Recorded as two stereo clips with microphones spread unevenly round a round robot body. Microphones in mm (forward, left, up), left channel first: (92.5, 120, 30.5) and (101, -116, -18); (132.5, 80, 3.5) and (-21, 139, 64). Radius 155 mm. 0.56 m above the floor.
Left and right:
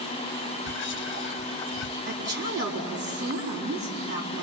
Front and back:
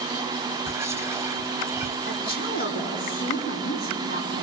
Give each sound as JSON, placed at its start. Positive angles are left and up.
{"t": 0.7, "sound": "whispering", "azimuth_deg": 65, "distance_m": 1.0}
{"t": 2.1, "sound": "a woman speaking", "azimuth_deg": -45, "distance_m": 4.0}